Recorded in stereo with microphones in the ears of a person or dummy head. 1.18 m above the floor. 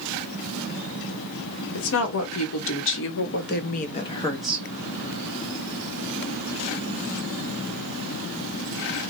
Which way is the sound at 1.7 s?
70° left (ahead or behind).